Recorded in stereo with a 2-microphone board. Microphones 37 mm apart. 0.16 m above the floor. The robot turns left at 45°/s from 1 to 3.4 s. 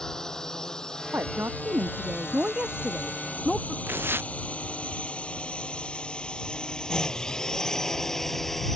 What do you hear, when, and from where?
0.0 s a drone: 15° left (ahead or behind); by 8.8 s 5° left (ahead or behind)
1.1 s a woman speaking: 80° right; by 3.8 s straight behind
3.9 s tearing paper: 80° right